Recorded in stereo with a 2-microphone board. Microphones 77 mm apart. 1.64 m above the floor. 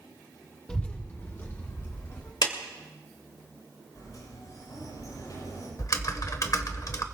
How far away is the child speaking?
About 0.7 m.